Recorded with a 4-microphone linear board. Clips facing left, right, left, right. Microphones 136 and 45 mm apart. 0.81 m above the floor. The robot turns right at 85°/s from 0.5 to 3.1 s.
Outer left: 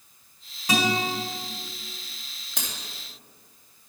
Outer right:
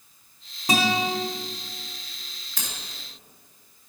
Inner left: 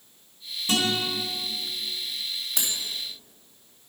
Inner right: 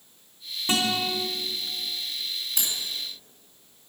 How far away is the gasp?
I don't hear a gasp.